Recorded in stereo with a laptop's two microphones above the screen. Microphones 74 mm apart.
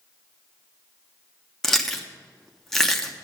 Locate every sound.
1.6 s chewing: 5° left (ahead or behind), 0.9 m